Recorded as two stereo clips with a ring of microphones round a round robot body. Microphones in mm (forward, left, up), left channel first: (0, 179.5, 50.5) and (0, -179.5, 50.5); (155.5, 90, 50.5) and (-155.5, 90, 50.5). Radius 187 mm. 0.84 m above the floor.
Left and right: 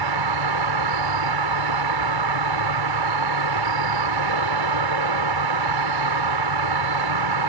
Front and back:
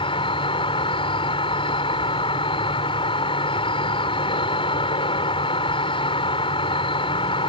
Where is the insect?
75° right.